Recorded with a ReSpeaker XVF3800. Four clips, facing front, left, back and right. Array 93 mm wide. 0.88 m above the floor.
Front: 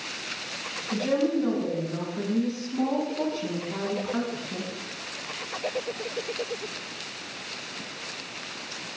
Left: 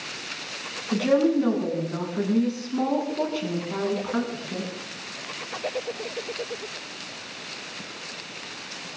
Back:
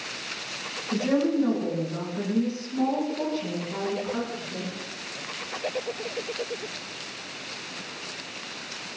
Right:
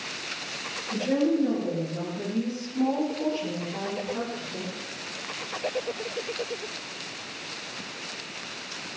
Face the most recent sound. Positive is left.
turn(degrees=80)